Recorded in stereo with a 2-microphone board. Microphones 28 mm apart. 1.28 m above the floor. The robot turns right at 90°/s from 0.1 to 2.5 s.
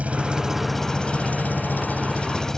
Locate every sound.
0.0 s an engine running: 50° right; by 2.6 s 165° left